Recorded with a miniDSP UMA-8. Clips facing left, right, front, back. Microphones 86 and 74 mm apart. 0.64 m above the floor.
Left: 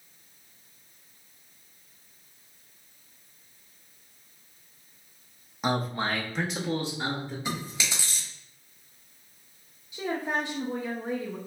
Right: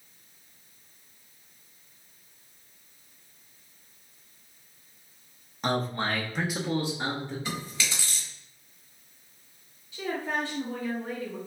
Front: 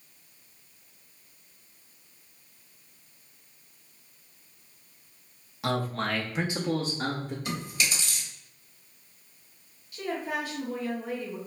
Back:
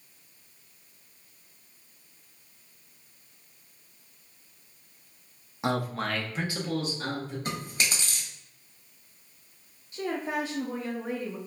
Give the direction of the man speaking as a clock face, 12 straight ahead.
7 o'clock.